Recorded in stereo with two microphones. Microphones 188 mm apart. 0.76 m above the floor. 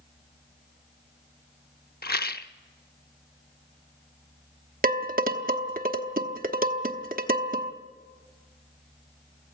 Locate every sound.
2.0 s a rattle: 55° left (ahead or behind), 0.6 m
4.8 s dishes clattering: 50° right (ahead or behind), 1.0 m